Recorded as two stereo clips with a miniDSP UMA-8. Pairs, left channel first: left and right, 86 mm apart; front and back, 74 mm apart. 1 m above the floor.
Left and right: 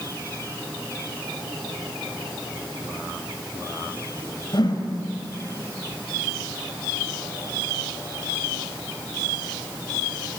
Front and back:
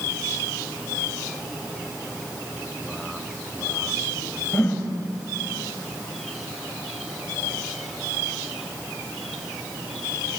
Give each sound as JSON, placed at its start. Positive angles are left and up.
{"t": 4.5, "sound": "a whoosh", "azimuth_deg": 65, "distance_m": 3.5}